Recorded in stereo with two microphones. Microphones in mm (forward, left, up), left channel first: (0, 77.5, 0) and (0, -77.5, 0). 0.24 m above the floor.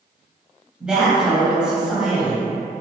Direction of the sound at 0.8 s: 5° right (ahead or behind).